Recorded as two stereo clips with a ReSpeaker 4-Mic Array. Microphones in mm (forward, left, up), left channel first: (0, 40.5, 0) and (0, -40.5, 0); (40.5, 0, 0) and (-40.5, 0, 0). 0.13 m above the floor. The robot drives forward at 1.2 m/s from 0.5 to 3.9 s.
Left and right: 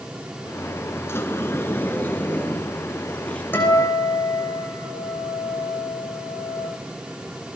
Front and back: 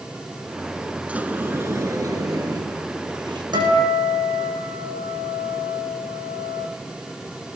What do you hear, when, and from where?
1.1 s a sliding door: 115° left, 1.7 m; by 3.4 s 165° left, 3.5 m
3.5 s a guitar: 155° left, 6.5 m